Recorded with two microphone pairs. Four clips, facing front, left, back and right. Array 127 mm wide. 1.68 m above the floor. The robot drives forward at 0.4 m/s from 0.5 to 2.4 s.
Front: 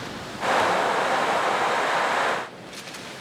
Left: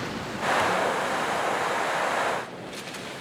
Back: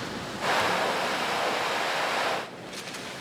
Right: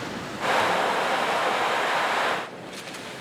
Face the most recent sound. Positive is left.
No sound to turn to.